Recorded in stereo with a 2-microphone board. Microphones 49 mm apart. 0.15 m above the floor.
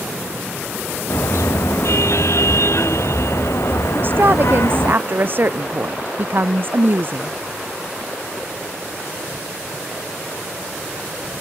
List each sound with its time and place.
1.1 s a car horn: 65° left (ahead or behind)
4.0 s a woman speaking: 45° right (ahead or behind)